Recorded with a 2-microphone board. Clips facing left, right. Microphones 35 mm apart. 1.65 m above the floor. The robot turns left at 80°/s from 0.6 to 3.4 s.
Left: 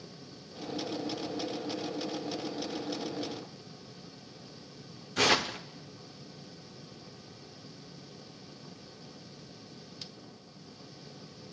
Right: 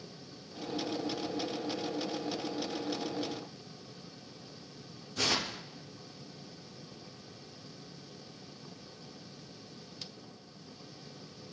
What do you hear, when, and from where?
5.2 s tearing paper: 60° left (ahead or behind), 0.6 m